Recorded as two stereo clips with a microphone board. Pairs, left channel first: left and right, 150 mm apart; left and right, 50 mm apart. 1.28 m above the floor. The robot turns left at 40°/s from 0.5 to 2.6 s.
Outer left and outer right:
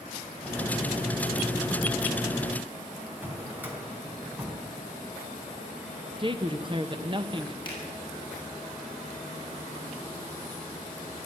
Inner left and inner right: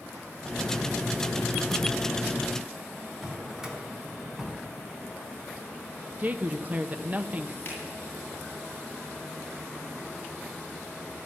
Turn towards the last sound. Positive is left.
turn(degrees=35)  # may be behind; listen again after turning